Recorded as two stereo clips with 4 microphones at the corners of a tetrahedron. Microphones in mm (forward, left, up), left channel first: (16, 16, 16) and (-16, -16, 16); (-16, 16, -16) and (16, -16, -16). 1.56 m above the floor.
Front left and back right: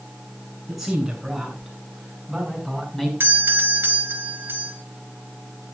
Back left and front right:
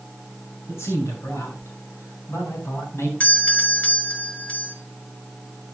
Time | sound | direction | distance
0.7 | a man speaking | 140° left | 7.5 m
3.2 | a doorbell | 170° right | 1.7 m